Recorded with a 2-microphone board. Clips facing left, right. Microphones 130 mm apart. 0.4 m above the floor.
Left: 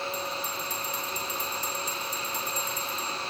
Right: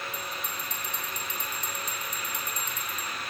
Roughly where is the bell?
Centre.